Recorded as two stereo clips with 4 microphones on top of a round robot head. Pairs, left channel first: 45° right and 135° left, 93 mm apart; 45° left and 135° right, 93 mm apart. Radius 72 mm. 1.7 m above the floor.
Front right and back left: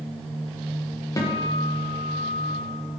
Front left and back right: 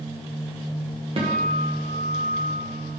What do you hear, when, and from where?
1.2 s a guitar: 105° right, 1.5 m